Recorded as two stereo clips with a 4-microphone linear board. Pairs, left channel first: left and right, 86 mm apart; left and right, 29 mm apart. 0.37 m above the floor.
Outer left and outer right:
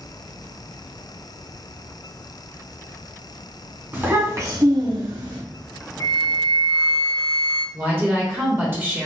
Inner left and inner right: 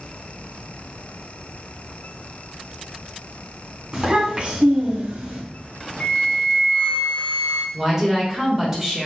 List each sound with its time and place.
3.9 s a child speaking: 20° right (ahead or behind), 1.6 m; by 5.4 s 65° right (ahead or behind), 1.2 m
6.0 s a flute: 50° left (ahead or behind), 0.7 m
7.7 s a woman speaking: 25° right (ahead or behind), 1.1 m